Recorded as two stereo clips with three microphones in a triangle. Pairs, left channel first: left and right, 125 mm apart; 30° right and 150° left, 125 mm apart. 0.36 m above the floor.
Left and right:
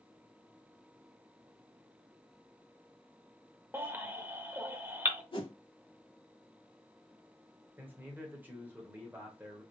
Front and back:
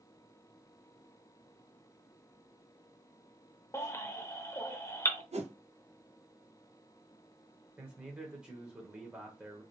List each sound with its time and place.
3.7 s a baby crying: 45° right, 0.7 m
5.3 s a whoosh: 130° left, 0.8 m
7.8 s a man speaking: 140° right, 1.1 m